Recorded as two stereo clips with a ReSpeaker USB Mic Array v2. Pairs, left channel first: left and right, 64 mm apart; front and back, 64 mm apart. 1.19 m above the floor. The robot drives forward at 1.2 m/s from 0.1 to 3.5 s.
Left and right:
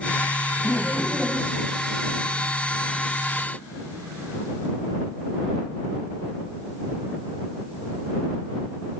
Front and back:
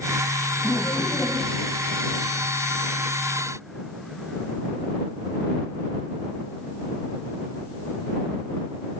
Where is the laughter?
15° right, 7.5 m; by 1.7 s 20° right, 6.5 m.